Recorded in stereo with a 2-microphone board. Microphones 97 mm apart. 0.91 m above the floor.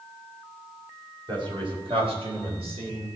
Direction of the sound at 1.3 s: 55° right (ahead or behind).